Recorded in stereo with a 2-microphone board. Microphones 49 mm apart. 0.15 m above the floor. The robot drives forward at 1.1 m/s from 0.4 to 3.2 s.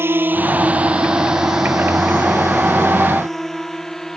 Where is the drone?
55° right (ahead or behind); by 4.2 s 10° left (ahead or behind).